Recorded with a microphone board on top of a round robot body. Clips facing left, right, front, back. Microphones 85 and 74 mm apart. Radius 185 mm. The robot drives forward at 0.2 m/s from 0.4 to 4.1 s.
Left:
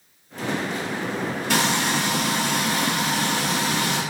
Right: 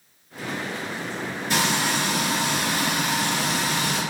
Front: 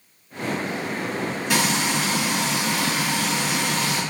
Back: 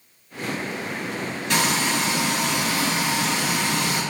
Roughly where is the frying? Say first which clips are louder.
Left 1 dB, back 1 dB; left.